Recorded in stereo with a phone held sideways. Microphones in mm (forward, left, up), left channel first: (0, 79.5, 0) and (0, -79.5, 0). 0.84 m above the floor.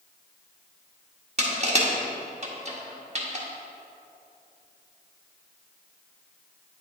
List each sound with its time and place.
1.4 s crushing: 45° right (ahead or behind), 1.5 m